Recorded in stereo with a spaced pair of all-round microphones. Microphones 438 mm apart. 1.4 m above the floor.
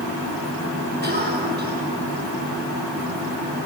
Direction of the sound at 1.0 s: 20° right (ahead or behind).